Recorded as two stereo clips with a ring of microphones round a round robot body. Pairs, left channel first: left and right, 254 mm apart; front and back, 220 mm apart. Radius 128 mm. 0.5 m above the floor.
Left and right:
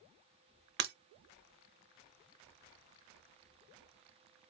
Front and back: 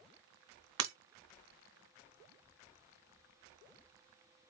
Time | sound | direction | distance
0.8 | breaking glass | 145° right | 0.6 m